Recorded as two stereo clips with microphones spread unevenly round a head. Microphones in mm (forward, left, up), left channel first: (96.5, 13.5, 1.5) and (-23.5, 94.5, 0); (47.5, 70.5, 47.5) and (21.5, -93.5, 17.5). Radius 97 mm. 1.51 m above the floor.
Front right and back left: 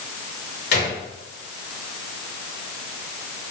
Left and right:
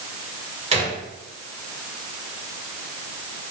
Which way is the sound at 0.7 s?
45° right.